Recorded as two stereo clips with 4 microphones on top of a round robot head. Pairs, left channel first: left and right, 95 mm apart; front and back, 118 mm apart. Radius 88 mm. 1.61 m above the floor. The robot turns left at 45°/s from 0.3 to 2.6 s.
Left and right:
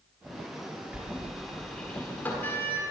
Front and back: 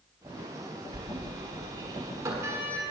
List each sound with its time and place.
0.9 s a sliding door: 155° right, 1.3 m; by 2.9 s 130° left, 1.3 m